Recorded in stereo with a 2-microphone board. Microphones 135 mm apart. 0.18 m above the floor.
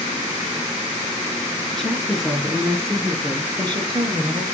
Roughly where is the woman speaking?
Centre.